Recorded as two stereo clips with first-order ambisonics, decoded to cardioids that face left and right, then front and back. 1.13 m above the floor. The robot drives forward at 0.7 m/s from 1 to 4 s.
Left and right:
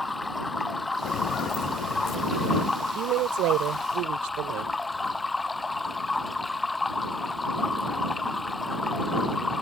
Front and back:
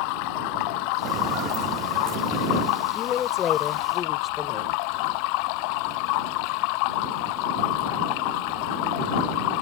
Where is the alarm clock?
I don't hear an alarm clock.